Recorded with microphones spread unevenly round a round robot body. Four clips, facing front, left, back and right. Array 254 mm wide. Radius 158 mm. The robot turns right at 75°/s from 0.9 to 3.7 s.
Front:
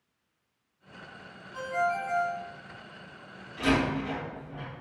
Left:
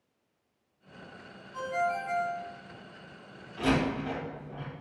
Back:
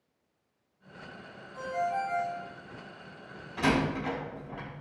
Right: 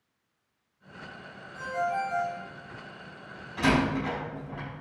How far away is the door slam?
About 3.5 m.